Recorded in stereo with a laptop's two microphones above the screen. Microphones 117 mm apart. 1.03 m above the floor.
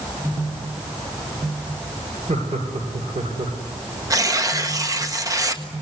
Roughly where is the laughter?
Right.